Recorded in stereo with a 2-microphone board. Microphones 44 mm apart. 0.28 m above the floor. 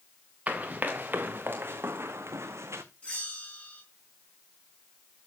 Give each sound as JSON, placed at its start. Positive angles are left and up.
{"t": 0.5, "sound": "running footsteps", "side_deg": -30, "distance_m": 1.9}
{"t": 3.0, "sound": "a bell", "side_deg": 25, "distance_m": 4.5}